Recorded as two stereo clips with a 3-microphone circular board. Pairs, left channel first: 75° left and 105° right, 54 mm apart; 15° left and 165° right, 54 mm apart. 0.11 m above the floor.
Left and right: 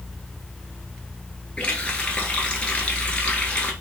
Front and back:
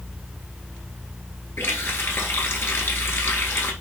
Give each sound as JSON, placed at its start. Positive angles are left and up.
{"t": 1.6, "sound": "a running tap", "azimuth_deg": 10, "distance_m": 1.1}